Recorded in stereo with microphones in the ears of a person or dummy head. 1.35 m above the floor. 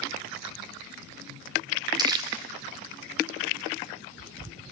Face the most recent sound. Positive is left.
turn(degrees=-20)  # may be behind; listen again after turning